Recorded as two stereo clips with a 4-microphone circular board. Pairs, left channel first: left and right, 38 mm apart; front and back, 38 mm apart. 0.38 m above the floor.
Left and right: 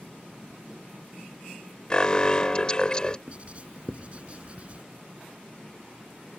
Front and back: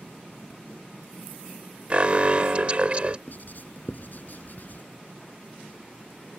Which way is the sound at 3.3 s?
35° right.